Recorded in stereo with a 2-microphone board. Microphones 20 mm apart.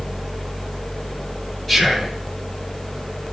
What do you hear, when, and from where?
1.7 s whispering: 15° left (ahead or behind), 1.6 m